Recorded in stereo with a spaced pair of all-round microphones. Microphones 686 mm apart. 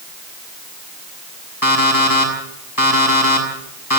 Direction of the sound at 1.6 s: 30° left (ahead or behind).